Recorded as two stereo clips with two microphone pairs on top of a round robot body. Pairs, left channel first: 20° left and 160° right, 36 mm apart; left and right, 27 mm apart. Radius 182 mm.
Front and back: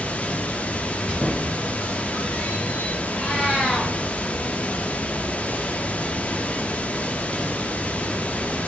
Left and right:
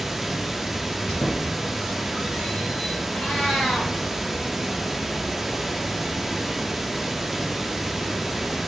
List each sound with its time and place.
0.0 s running water: 20° right, 0.7 m
1.1 s a squeak: 100° left, 0.6 m
3.1 s a cat meowing: 70° left, 1.1 m